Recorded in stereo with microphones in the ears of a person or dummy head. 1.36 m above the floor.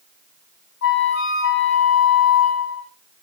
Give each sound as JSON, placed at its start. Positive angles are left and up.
{"t": 0.8, "sound": "a flute", "side_deg": 70, "distance_m": 3.0}